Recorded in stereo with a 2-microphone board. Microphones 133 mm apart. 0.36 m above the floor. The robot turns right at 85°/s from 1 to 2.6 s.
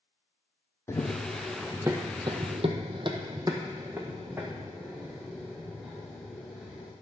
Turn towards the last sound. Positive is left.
turn(degrees=0)  # may be behind; listen again after turning